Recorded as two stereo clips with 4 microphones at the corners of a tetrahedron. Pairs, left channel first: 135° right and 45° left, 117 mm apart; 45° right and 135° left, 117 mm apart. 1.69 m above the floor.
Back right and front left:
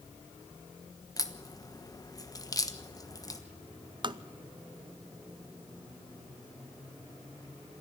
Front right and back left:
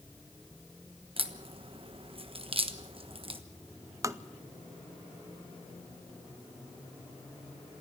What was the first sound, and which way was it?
A crack, 170° left.